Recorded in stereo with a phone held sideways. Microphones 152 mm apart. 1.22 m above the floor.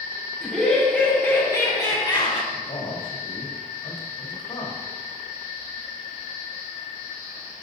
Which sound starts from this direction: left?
A man speaking, at 2.5 s.